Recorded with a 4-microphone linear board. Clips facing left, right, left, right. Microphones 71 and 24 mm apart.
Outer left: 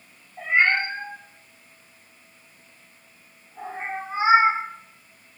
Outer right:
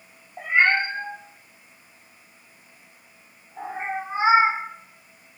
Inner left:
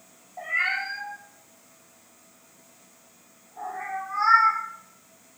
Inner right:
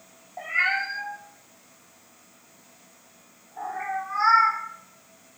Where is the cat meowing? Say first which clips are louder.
Outer right 1 dB, inner right 2 dB; 50° right (ahead or behind), 0.7 m.